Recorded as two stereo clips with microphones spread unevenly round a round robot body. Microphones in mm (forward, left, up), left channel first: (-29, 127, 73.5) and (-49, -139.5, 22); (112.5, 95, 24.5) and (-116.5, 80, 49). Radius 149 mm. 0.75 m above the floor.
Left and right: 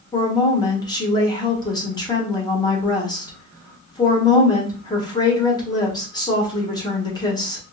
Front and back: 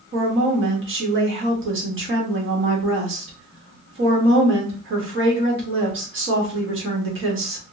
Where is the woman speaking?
165° left, 1.3 m.